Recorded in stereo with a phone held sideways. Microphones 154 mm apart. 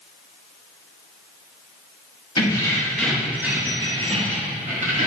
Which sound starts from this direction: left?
Keys jangling, at 2.4 s.